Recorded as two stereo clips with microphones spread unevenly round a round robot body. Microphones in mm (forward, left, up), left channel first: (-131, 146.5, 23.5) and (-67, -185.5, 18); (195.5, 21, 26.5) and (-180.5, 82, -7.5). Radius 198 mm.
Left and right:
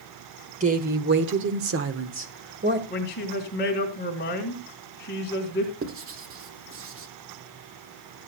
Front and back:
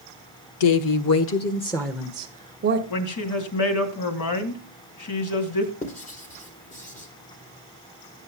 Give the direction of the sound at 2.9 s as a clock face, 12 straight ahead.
11 o'clock.